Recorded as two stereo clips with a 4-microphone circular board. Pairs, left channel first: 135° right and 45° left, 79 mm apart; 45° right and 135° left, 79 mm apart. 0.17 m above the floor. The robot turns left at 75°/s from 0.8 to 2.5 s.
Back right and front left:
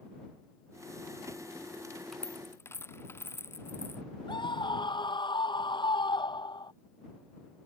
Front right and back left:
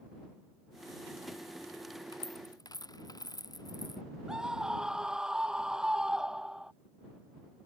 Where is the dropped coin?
50° right; by 4.0 s 75° right.